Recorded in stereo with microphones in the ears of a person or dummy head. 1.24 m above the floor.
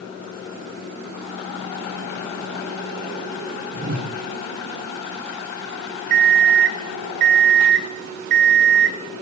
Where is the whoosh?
50° right (ahead or behind), 6.5 m.